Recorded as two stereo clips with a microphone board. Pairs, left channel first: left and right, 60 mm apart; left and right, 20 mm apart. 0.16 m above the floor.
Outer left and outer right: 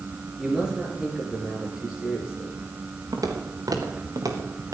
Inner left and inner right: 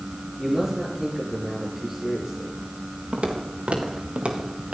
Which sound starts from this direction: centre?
A man speaking, at 0.4 s.